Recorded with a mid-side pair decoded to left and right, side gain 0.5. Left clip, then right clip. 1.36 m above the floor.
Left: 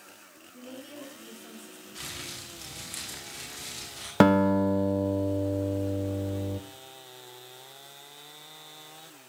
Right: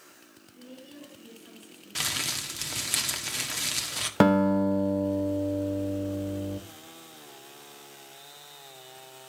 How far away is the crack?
No crack in this recording.